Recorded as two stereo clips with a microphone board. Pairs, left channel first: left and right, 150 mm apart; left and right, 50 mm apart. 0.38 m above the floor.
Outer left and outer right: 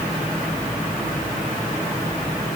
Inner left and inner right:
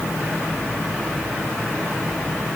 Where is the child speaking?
No child speaking in this recording.